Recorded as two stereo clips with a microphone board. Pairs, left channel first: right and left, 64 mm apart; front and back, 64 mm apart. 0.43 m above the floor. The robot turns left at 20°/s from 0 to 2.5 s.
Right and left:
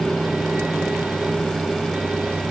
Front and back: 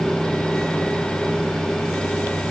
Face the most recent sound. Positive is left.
No sound to turn to.